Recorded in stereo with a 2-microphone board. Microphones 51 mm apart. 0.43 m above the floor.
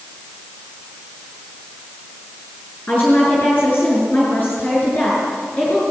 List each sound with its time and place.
2.9 s a woman speaking: 35° left (ahead or behind), 6.5 m